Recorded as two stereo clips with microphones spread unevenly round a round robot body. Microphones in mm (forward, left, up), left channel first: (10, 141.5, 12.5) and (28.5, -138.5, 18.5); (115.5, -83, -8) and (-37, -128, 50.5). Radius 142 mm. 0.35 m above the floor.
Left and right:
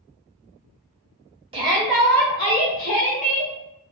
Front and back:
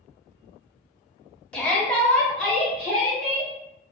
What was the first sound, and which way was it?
A shout, 25° right.